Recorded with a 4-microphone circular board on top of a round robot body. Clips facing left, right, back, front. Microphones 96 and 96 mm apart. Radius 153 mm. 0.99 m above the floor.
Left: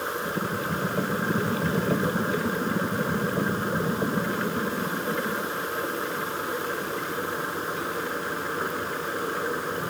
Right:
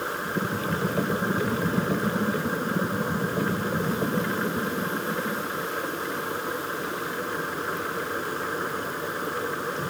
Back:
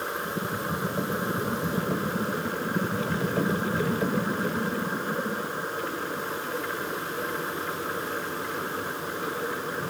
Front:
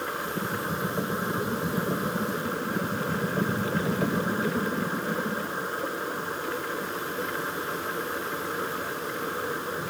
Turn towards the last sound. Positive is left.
No sound to turn to.